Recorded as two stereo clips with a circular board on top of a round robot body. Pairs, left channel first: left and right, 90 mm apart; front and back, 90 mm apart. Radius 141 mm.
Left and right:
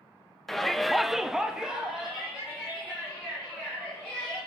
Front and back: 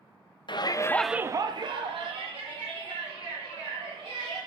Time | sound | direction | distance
0.5 | a shout | 5° left | 0.8 m